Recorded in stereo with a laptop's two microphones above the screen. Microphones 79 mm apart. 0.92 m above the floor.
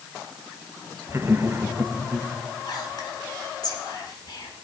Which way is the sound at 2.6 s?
60° left (ahead or behind).